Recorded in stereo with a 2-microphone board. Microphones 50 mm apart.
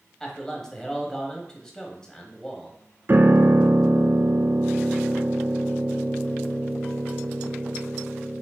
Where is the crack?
No crack in this recording.